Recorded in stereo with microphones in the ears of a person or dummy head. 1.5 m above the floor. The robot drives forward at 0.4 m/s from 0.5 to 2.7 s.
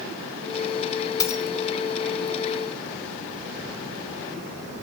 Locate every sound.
1.2 s a dropped coin: 20° left (ahead or behind), 2.5 m